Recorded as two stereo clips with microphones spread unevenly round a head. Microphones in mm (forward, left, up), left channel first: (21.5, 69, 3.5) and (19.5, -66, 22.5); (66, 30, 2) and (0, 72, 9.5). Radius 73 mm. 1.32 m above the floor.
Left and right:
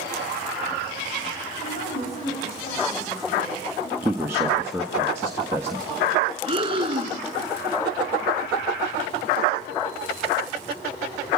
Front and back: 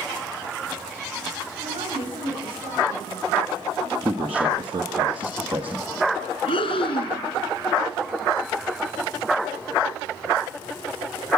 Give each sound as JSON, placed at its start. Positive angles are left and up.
{"t": 1.6, "sound": "a woman speaking", "azimuth_deg": 135, "distance_m": 7.5}
{"t": 4.0, "sound": "a man speaking", "azimuth_deg": -165, "distance_m": 1.5}
{"t": 6.5, "sound": "breathing", "azimuth_deg": -45, "distance_m": 3.5}